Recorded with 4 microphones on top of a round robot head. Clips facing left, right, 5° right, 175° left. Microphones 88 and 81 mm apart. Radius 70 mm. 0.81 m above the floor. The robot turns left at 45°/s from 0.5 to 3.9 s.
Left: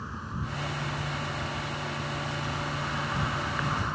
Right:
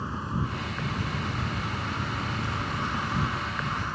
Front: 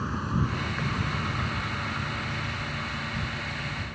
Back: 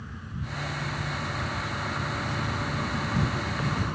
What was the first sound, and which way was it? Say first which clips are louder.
An insect: right 5 dB, front 10 dB; 35° right.